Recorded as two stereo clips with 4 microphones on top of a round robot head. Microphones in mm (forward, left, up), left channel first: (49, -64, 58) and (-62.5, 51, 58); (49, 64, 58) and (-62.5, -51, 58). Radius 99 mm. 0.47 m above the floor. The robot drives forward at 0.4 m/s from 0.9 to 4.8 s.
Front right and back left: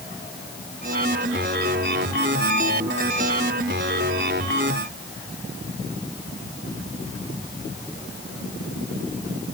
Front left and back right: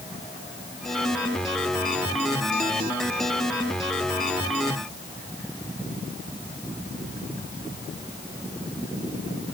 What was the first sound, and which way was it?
Only background noise.